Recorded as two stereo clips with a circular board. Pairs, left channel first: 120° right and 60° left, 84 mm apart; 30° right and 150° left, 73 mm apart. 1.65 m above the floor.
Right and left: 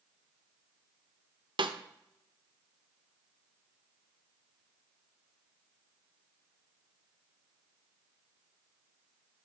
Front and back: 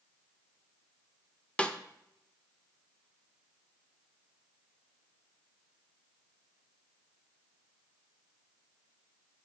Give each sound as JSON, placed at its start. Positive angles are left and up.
{"t": 1.6, "sound": "a snare drum", "azimuth_deg": 45, "distance_m": 0.5}